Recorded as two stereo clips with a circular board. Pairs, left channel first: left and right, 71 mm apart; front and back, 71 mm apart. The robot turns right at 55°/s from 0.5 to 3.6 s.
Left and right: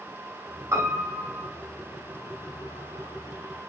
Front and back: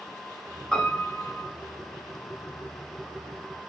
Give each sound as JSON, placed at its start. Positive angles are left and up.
{"t": 0.7, "sound": "a piano", "azimuth_deg": -75, "distance_m": 1.5}